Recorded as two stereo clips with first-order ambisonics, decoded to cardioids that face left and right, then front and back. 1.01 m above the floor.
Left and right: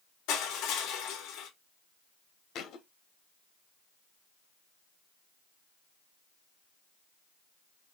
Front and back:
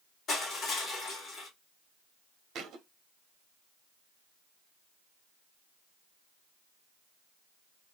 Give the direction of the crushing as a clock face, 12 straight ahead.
10 o'clock.